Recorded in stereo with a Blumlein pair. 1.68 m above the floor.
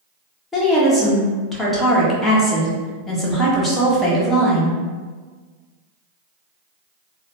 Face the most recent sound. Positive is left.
turn(degrees=5)